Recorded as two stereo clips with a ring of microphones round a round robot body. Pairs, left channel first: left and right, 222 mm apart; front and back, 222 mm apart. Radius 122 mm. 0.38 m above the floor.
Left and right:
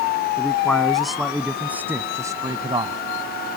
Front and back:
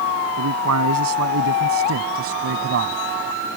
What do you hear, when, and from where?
0.4 s a man speaking: 175° left; by 3.0 s 155° right